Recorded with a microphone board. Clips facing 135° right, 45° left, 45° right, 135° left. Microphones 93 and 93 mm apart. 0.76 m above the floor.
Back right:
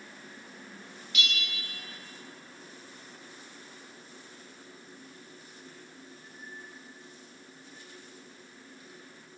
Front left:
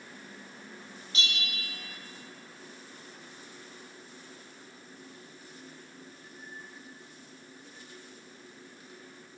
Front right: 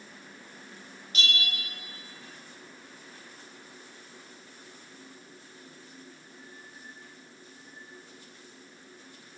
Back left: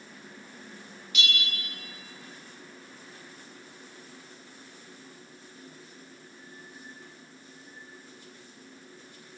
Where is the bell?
5° right, 0.7 m.